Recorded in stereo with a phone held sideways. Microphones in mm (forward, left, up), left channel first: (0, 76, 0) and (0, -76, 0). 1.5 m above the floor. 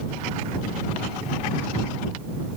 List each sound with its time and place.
Only background noise.